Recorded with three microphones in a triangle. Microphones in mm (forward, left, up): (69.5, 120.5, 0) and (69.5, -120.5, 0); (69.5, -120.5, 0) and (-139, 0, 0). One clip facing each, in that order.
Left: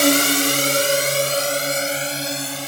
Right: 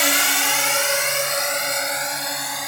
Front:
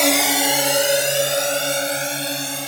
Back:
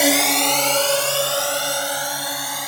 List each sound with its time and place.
0.0 s a drone: 70° left; by 2.7 s 30° left